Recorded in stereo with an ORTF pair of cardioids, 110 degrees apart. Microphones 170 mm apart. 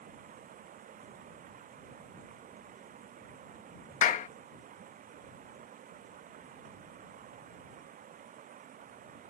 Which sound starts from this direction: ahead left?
A clap, at 4.0 s.